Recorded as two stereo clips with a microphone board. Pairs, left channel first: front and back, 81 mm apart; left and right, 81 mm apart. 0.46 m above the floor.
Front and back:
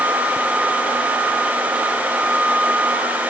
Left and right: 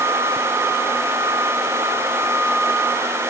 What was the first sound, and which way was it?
Only background noise.